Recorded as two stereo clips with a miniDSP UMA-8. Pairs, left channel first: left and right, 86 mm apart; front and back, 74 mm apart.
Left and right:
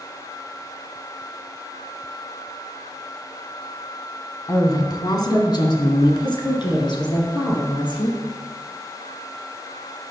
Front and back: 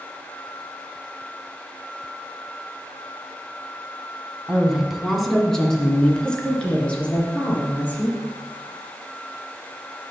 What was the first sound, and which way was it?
A woman speaking, 105° left.